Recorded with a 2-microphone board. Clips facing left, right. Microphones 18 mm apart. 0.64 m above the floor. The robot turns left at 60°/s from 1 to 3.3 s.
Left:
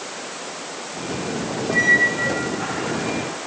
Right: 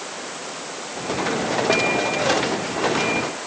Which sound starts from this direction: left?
A squeak, at 1.7 s.